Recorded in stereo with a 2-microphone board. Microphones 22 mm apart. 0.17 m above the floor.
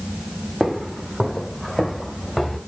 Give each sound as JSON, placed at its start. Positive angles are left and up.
{"t": 0.6, "sound": "footsteps", "side_deg": -10, "distance_m": 1.3}